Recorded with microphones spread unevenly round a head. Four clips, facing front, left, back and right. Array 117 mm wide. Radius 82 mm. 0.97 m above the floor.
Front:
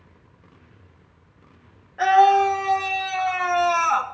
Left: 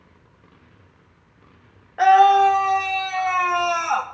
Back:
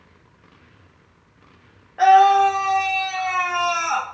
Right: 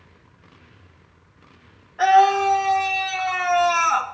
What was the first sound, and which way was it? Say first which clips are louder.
A scream: left 2 dB, back 3 dB; 90° left.